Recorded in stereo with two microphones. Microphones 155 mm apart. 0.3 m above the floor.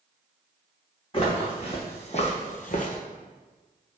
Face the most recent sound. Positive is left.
turn(degrees=65)  # may be behind; listen again after turning